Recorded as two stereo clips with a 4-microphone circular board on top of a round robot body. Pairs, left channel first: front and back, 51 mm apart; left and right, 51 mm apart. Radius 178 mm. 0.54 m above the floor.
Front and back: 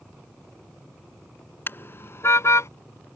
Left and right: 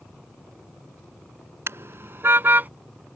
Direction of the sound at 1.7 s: 50° right.